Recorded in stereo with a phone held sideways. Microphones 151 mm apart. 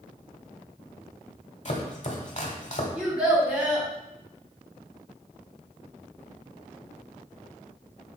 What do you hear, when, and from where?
1.6 s chopping: 50° left (ahead or behind), 1.2 m
3.0 s a child speaking: 10° right (ahead or behind), 1.8 m